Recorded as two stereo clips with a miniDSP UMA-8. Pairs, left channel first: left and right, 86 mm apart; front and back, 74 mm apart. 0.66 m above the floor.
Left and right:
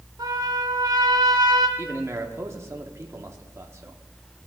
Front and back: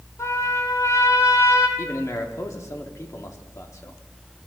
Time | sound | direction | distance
0.2 | a trumpet | 50° right | 2 m
1.8 | a man speaking | 40° right | 1.2 m